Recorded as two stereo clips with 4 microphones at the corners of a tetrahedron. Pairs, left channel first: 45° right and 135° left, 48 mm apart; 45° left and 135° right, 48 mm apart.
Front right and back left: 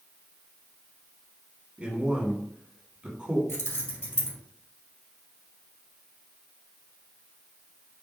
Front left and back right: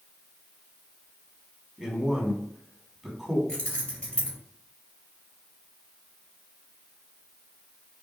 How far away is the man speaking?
About 1.8 m.